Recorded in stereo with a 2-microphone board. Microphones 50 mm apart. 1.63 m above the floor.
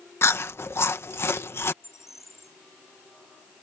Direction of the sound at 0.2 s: 55° left (ahead or behind).